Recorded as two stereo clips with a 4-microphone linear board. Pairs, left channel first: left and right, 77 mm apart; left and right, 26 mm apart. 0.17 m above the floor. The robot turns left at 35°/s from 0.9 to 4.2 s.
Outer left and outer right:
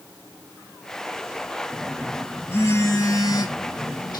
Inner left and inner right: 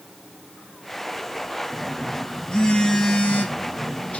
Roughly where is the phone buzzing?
Behind.